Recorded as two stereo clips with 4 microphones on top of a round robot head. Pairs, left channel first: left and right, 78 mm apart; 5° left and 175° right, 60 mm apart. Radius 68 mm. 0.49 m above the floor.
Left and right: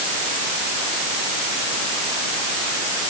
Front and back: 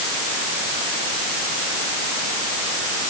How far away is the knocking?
I don't hear knocking.